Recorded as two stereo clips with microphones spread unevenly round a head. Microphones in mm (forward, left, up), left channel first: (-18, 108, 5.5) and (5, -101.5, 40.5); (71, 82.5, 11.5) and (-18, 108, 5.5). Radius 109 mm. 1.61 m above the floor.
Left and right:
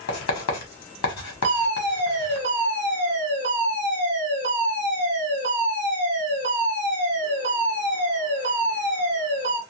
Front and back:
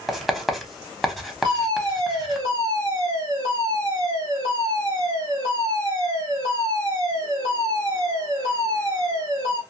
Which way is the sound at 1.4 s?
140° right.